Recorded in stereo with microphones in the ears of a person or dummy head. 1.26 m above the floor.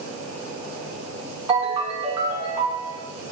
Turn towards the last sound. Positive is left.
turn(degrees=-30)  # may be behind; listen again after turning